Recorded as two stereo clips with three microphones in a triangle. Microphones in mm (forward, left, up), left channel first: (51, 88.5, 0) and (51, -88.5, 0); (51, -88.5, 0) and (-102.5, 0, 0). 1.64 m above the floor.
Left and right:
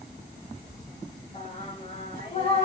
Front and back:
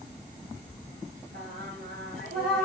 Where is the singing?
135° left, 2.5 m.